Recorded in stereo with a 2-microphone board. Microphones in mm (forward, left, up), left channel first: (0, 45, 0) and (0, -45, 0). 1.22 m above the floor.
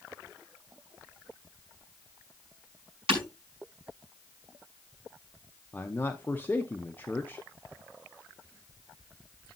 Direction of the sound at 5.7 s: 20° left (ahead or behind).